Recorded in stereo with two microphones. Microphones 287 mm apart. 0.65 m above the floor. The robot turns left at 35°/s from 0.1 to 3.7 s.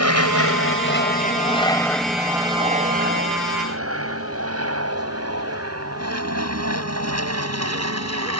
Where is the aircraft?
65° left (ahead or behind); by 8.4 s 70° right (ahead or behind).